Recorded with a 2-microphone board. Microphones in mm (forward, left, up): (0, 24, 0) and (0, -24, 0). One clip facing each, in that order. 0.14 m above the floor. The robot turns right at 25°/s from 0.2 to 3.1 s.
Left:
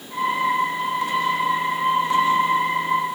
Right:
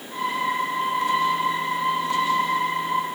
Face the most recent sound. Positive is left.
No sound to turn to.